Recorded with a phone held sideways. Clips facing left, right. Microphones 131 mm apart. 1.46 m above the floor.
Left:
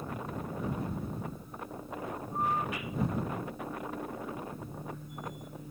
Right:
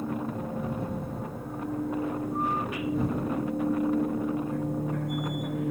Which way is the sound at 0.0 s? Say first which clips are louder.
Right 7 dB; 85° right.